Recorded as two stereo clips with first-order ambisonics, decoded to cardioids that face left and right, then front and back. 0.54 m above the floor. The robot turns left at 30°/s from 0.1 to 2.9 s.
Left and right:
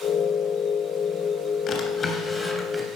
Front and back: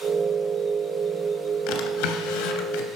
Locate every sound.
1.7 s a drawer: 30° left, 2.5 m; by 2.9 s 5° right, 2.5 m